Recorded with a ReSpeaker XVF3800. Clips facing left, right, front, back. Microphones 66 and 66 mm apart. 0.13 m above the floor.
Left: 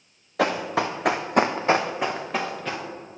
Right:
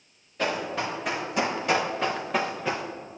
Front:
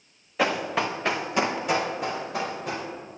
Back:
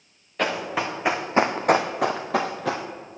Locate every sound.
0.4 s running footsteps: 85° left, 1.1 m; by 2.9 s 165° right, 1.1 m